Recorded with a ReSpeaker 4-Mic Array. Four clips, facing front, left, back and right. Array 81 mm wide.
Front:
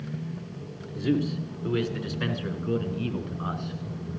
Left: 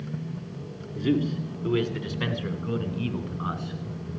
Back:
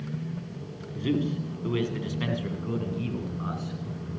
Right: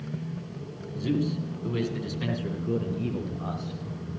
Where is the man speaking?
140° left, 1.8 m; by 3.8 s 80° left, 2.5 m.